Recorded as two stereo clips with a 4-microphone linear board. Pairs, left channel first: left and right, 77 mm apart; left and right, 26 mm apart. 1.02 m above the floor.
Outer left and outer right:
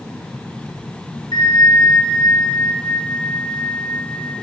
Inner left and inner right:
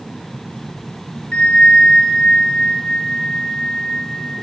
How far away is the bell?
About 0.7 m.